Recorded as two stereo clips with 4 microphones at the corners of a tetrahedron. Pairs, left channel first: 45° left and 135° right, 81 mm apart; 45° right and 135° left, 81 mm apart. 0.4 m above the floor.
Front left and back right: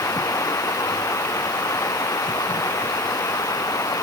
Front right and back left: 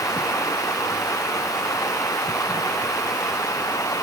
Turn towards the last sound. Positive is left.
turn(degrees=0)